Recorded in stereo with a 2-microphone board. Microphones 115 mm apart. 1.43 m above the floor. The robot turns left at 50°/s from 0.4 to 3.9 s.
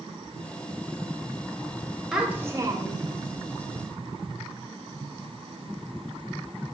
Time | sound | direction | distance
2.1 | a child speaking | 5° right | 0.6 m